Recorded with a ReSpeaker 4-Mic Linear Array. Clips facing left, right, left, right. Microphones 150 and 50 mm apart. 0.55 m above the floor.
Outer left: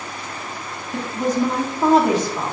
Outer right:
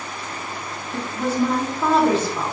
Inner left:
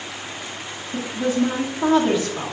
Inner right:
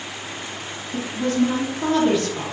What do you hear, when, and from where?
0.9 s a woman speaking: 10° left (ahead or behind), 0.6 m